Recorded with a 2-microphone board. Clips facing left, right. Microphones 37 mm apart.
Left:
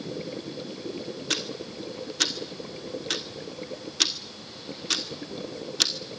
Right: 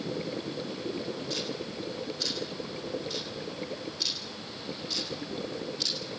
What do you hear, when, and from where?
1.3 s ticking: 80° left, 2.5 m